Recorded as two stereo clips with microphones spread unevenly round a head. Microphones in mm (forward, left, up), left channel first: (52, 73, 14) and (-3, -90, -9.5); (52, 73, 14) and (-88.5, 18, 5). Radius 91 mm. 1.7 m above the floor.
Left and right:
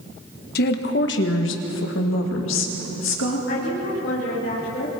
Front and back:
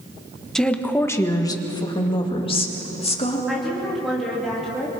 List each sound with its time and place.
0.6 s a woman speaking: 105° left, 1.5 m; by 3.4 s 70° left, 3.5 m
3.5 s a woman speaking: 110° left, 3.5 m